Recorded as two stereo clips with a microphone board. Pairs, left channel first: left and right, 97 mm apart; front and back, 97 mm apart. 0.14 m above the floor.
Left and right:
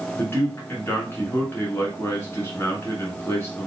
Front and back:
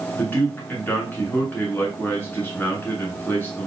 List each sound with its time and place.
0.1 s a man speaking: 50° left, 1.9 m